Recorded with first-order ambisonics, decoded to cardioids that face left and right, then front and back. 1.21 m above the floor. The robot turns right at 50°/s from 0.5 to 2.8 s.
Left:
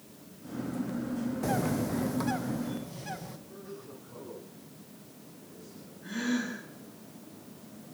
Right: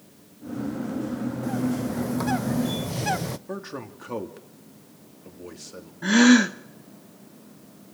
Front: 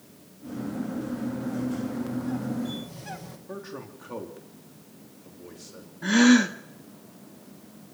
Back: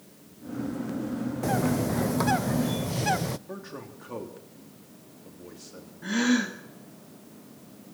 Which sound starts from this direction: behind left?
A bird, at 1.4 s.